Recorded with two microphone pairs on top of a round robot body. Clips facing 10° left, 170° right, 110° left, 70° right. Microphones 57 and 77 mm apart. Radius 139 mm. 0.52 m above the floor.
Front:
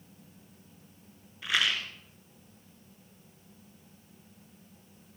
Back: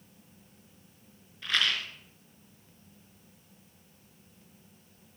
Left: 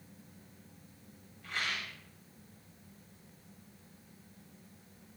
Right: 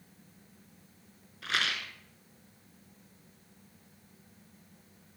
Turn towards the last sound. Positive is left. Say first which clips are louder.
# even, right 5 dB
turn(degrees=-70)